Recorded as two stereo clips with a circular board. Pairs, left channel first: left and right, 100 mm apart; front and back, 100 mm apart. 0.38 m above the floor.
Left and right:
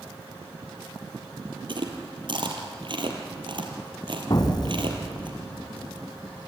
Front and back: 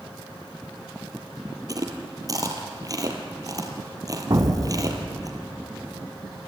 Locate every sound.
1.7 s chewing: 125° right, 2.5 m
4.3 s an explosion: 135° left, 2.5 m